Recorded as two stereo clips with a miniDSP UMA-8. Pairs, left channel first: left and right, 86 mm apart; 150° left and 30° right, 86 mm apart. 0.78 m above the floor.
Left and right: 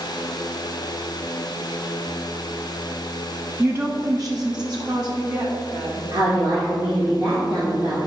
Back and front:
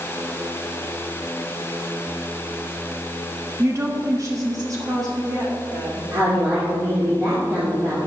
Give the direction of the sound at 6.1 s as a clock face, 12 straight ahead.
2 o'clock.